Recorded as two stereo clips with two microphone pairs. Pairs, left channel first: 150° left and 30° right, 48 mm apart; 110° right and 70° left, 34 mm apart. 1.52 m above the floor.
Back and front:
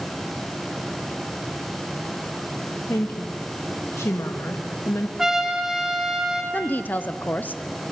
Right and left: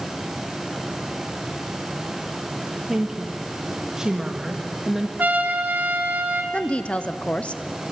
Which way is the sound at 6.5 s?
160° right.